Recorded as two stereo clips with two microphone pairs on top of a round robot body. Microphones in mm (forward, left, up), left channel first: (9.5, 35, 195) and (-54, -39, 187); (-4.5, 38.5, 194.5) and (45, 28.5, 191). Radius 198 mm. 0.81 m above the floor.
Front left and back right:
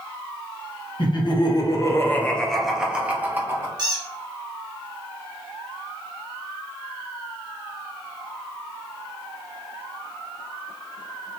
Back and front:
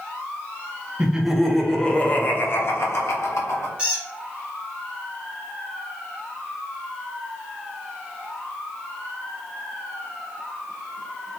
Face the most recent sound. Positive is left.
turn(degrees=-80)